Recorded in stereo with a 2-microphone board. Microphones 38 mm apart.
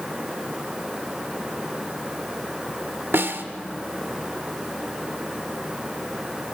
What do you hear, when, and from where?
3.1 s a snare drum: 65° right (ahead or behind), 1.2 m